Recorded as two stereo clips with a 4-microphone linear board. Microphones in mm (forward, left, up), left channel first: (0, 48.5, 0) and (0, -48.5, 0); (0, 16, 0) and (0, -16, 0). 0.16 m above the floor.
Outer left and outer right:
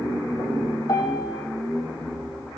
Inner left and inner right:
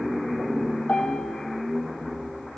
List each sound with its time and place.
0.9 s a piano: 45° left (ahead or behind), 4 m